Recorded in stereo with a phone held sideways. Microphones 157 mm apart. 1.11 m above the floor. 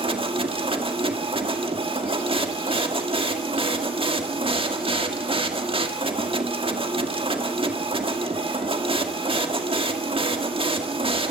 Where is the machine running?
35° right (ahead or behind), 1.9 m.